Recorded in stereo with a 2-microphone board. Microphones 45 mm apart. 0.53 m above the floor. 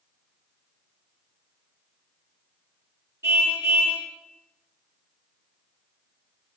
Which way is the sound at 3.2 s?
70° right (ahead or behind).